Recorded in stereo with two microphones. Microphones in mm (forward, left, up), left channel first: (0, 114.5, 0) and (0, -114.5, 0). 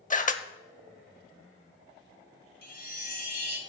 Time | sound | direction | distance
0.1 | a camera shutter | 35° left (ahead or behind) | 0.6 m
2.6 | a chime | 40° left (ahead or behind) | 1.5 m